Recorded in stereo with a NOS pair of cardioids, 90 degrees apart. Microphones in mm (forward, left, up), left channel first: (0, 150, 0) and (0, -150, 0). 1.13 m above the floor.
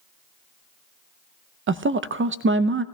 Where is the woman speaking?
40° right, 0.5 m.